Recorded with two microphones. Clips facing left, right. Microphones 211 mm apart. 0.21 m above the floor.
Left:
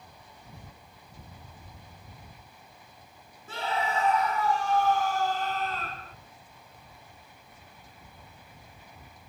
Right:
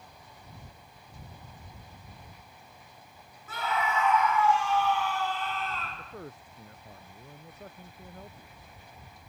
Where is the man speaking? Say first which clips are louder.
Right 8 dB; 70° right (ahead or behind).